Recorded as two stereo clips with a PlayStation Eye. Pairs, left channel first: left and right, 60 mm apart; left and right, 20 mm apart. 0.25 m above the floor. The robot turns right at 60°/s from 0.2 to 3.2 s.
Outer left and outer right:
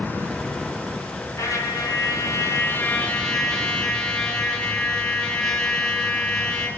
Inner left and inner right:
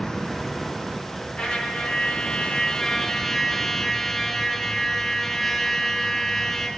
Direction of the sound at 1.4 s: 60° left.